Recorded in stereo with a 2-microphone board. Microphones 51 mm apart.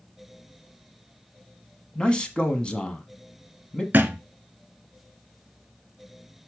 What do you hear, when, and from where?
1.9 s a man speaking: 20° left (ahead or behind), 1.3 m
3.9 s a thud: 45° right (ahead or behind), 0.9 m